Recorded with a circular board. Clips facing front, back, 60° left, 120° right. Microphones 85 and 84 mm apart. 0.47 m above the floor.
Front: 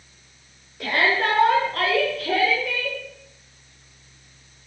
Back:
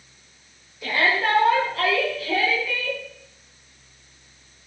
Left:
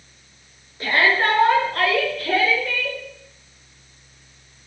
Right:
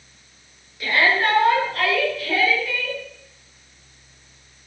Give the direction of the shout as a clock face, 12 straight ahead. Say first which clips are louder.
Front 1 dB, left 1 dB; 12 o'clock.